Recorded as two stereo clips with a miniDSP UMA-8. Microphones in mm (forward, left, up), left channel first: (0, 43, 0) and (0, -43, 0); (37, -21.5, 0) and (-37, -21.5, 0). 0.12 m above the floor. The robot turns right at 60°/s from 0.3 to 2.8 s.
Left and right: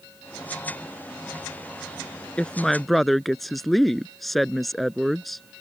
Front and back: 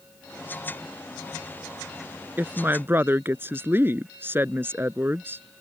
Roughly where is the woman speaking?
Behind left.